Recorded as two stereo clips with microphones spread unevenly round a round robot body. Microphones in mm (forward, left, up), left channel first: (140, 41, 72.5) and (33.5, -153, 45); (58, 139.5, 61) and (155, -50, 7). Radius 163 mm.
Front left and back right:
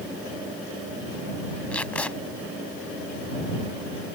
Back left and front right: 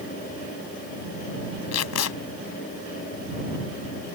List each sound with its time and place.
1.7 s tape being pulled: 145° left